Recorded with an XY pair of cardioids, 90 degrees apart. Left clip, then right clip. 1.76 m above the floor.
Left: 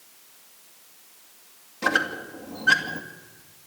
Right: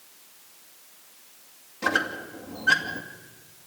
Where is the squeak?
25° left, 2.5 m.